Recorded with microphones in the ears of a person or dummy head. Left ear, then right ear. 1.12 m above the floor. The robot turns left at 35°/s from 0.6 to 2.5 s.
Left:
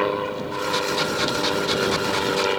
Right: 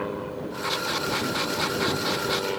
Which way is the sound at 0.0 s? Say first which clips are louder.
Left 8 dB; 70° left (ahead or behind).